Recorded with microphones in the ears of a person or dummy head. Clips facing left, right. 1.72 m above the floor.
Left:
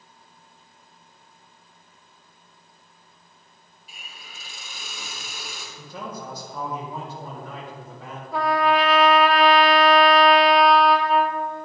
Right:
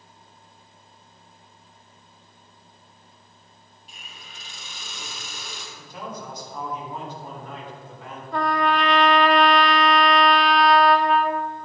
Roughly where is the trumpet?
Centre.